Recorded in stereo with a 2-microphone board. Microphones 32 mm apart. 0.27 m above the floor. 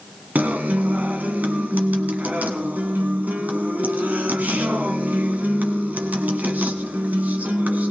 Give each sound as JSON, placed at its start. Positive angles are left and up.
{"t": 0.3, "sound": "a guitar", "side_deg": -65, "distance_m": 1.4}